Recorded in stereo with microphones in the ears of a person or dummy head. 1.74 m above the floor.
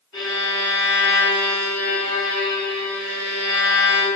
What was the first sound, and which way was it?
A violin, 30° left (ahead or behind).